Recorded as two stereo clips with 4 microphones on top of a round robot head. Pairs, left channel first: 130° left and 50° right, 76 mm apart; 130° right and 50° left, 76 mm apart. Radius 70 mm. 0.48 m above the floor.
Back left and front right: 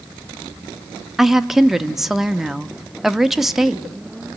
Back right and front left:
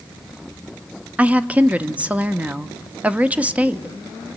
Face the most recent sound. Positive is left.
turn(degrees=30)